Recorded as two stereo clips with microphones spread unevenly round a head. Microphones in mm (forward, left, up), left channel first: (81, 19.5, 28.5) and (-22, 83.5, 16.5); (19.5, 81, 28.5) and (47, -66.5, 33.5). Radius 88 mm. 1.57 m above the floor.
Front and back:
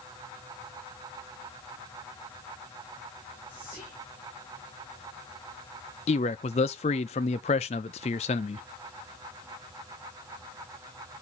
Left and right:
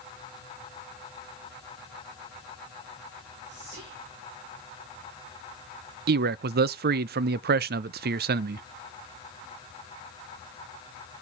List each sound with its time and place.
3.5 s whispering: 100° right, 2.5 m
6.1 s a man speaking: 75° right, 0.5 m